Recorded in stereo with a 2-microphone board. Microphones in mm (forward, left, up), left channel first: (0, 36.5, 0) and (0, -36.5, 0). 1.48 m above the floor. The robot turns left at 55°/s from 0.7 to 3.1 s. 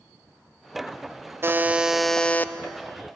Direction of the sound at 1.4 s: 150° right.